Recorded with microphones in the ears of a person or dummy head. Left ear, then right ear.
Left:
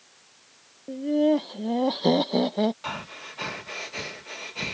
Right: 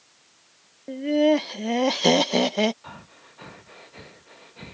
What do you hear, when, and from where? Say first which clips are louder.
0.9 s laughter: right 3 dB; 55° right (ahead or behind); by 2.7 s 70° right (ahead or behind)
2.8 s breathing: left 10 dB; 75° left (ahead or behind)